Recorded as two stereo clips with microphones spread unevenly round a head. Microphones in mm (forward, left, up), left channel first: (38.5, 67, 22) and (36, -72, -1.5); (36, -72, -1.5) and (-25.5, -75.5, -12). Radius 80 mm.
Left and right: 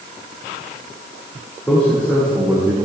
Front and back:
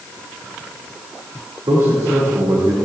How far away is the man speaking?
About 2 m.